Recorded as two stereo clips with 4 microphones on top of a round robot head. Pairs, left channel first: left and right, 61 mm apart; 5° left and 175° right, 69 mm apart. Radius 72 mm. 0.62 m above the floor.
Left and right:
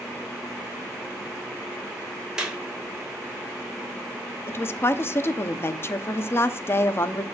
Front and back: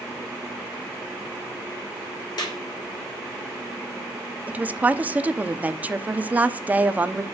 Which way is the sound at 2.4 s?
10° right.